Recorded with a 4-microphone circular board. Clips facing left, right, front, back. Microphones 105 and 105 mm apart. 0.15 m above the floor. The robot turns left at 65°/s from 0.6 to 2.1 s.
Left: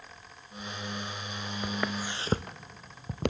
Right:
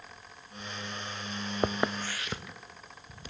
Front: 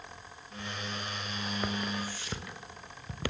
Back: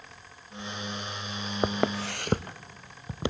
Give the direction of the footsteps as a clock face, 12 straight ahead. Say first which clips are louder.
Right 4 dB, back 10 dB; 4 o'clock.